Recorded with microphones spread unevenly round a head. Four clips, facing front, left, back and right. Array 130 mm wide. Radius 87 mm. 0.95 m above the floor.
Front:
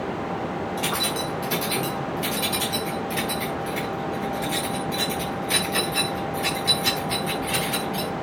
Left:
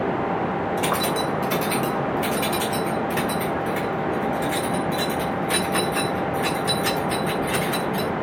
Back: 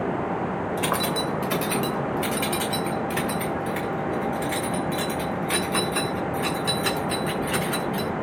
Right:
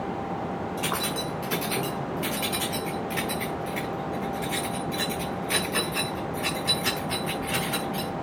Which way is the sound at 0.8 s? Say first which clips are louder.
Left 7 dB, back 4 dB; 145° left.